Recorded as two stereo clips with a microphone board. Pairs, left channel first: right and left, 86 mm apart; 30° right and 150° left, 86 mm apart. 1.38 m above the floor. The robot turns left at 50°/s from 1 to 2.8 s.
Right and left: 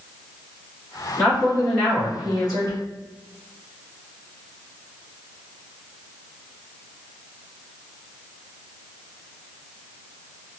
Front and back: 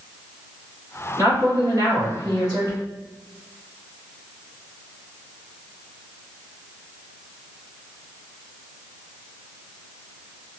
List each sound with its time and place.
1.2 s a woman speaking: 175° left, 1.7 m; by 2.8 s 100° left, 1.7 m